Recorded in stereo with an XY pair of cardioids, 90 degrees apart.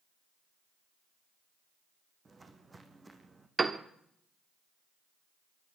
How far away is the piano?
About 1.4 m.